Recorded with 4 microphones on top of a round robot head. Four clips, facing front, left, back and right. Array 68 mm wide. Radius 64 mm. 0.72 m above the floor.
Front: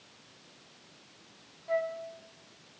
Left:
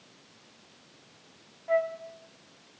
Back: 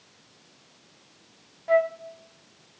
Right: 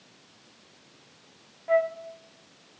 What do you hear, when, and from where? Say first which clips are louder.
1.7 s a flute: right 3 dB, back 9 dB; 160° right, 0.9 m